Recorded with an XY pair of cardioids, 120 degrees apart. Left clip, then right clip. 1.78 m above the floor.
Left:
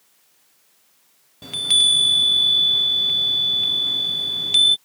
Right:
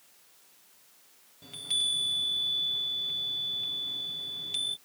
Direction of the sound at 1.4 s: 65° left.